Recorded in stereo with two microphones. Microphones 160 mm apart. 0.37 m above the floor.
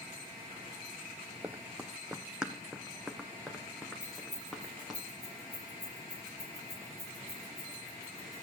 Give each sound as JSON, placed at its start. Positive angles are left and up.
{"t": 1.4, "sound": "running footsteps", "side_deg": -10, "distance_m": 0.6}
{"t": 4.0, "sound": "keys jangling", "side_deg": -20, "distance_m": 10.0}